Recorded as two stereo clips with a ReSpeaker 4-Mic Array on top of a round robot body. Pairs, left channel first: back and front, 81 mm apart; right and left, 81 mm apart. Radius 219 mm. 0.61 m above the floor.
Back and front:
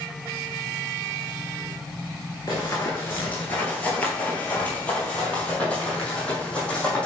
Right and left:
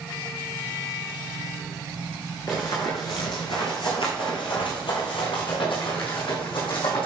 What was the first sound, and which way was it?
Running footsteps, 140° right.